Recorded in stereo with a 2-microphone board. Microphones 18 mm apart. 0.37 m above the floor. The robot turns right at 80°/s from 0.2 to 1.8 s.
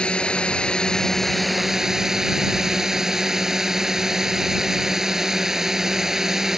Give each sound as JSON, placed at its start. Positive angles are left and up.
{"t": 0.0, "sound": "a drone", "azimuth_deg": 80}